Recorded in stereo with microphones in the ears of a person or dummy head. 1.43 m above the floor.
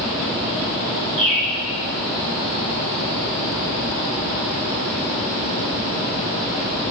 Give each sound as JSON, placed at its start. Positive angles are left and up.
{"t": 1.2, "sound": "a bird", "side_deg": -65, "distance_m": 1.3}